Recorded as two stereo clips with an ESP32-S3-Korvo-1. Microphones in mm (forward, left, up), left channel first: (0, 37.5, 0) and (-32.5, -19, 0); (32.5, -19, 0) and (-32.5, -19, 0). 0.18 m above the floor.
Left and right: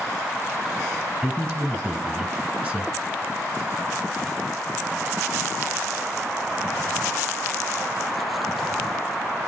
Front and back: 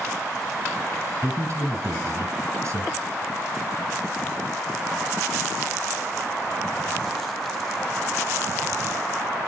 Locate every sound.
1.2 s a man speaking: 175° left, 1.5 m